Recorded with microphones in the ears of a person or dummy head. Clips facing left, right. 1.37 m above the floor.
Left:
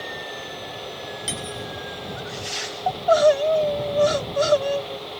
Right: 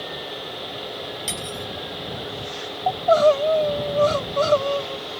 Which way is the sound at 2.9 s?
15° left (ahead or behind).